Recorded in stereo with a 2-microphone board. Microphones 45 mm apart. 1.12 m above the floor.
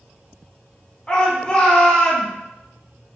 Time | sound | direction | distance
1.1 | a shout | 20° left (ahead or behind) | 1.1 m